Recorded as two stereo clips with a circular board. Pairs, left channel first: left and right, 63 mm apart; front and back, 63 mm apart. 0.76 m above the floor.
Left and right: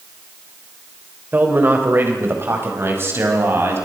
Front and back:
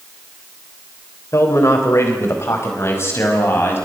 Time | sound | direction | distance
1.3 | a man speaking | 35° right | 3.5 m